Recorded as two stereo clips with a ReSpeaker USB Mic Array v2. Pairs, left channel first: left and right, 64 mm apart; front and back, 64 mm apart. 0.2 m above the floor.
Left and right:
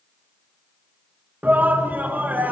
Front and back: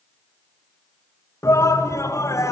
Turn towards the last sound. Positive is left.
turn(degrees=-30)